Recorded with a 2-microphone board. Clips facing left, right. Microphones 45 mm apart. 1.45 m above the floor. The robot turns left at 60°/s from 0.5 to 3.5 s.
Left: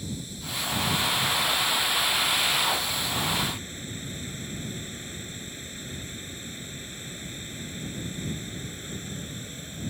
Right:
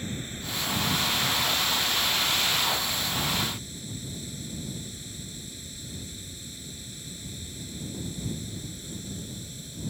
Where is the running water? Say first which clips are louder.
Right 1 dB; 40° right; by 9.9 s 140° left.